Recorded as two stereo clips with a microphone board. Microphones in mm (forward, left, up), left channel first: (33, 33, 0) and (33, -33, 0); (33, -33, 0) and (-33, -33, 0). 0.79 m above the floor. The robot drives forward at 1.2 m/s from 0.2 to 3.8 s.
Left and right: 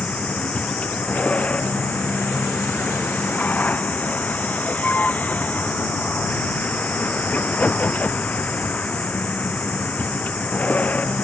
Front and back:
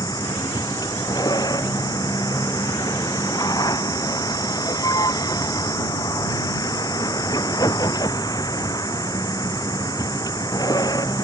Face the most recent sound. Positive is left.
turn(degrees=25)